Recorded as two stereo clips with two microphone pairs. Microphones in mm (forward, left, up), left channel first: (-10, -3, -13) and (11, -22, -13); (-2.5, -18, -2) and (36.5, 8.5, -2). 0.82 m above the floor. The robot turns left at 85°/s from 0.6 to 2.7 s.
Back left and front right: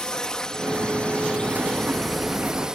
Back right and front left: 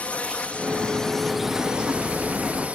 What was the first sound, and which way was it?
A drone, 170° right.